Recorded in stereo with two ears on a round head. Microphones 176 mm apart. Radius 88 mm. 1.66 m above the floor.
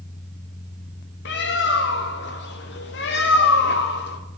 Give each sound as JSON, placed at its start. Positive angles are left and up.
{"t": 1.2, "sound": "a bird", "side_deg": 55, "distance_m": 0.6}